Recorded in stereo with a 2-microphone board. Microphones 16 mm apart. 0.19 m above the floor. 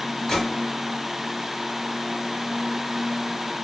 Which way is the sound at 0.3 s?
35° left (ahead or behind).